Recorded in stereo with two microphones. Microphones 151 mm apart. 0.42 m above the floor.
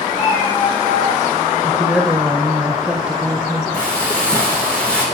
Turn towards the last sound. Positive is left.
turn(degrees=5)  # may be behind; listen again after turning